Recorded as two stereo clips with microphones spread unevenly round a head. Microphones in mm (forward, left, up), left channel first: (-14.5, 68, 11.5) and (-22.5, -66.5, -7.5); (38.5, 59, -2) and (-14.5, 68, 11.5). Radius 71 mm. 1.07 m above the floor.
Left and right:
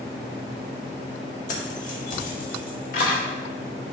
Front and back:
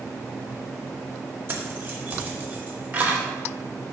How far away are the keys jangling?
About 2.0 m.